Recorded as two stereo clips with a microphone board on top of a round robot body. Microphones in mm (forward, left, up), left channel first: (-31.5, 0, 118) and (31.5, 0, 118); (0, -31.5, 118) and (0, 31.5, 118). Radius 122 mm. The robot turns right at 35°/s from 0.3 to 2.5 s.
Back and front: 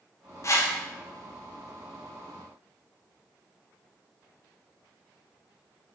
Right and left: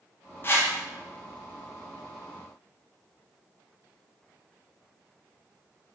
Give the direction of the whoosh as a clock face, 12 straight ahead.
5 o'clock.